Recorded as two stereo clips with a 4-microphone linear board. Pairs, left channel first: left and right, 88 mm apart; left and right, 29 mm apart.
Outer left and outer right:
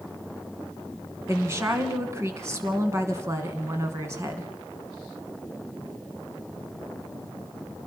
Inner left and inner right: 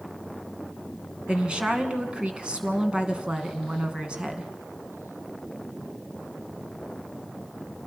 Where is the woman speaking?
30° right (ahead or behind), 2.5 m.